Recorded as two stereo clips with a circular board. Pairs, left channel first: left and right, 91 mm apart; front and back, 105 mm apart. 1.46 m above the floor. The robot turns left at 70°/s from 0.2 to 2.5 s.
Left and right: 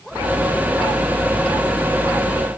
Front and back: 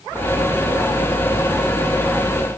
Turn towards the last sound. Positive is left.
No sound to turn to.